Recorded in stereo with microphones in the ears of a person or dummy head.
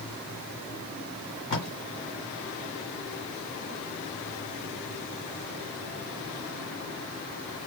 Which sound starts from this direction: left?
Tape being pulled, at 1.5 s.